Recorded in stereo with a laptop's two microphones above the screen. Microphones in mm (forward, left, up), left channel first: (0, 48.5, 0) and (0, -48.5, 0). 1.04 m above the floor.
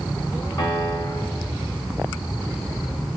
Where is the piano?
50° left (ahead or behind), 3.5 m.